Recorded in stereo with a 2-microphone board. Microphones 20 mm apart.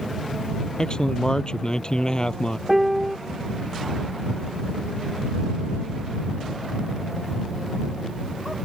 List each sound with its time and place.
0.8 s a man speaking: 35° left (ahead or behind)
2.7 s a piano: 10° right (ahead or behind)